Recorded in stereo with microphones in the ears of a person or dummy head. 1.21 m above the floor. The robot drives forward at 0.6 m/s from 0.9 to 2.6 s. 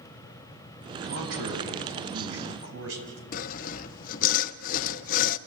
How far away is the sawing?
About 0.7 m.